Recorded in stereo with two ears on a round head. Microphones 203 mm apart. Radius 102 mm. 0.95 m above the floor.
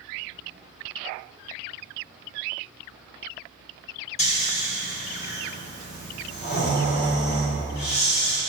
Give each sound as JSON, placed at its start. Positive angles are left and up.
{"t": 4.2, "sound": "snoring", "side_deg": 30, "distance_m": 1.3}